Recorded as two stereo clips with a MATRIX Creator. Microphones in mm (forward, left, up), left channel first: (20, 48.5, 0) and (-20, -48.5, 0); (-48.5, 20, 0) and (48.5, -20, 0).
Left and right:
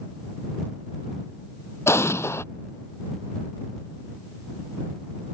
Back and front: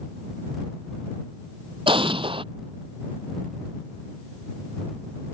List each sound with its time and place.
1.9 s an explosion: 5° left